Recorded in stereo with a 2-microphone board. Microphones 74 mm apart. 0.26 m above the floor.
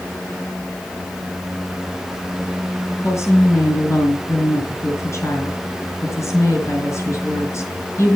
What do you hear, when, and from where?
3.0 s a woman speaking: 40° left (ahead or behind), 4 m